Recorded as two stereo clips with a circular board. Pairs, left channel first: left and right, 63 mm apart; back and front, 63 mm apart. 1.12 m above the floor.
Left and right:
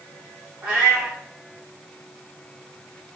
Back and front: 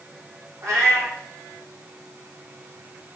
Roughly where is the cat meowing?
Ahead right.